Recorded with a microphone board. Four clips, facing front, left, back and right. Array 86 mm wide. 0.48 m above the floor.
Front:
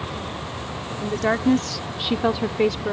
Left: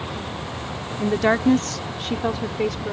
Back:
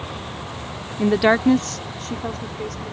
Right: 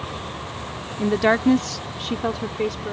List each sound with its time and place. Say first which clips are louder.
1.0 s a woman speaking: right 1 dB, back 6 dB; 175° right; by 2.9 s straight ahead